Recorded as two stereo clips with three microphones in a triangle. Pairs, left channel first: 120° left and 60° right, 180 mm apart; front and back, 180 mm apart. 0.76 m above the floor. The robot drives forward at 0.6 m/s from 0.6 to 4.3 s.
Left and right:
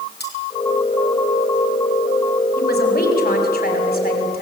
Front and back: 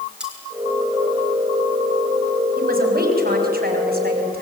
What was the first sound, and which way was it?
Cutlery clinking, 95° left.